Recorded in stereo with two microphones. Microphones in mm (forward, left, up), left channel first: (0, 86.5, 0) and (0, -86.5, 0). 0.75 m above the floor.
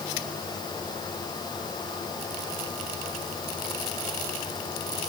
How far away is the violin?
I don't hear a violin.